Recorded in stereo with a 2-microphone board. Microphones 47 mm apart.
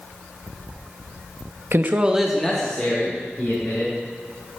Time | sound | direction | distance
1.7 | a man speaking | 60° right (ahead or behind) | 0.7 m